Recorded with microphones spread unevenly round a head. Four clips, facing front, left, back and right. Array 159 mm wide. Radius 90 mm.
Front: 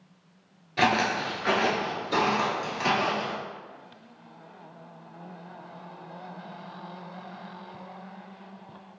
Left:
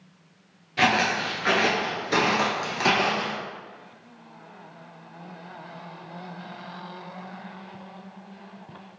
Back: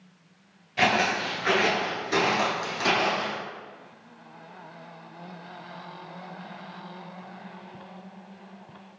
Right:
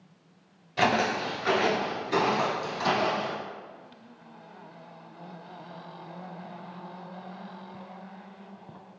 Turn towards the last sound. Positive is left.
turn(degrees=100)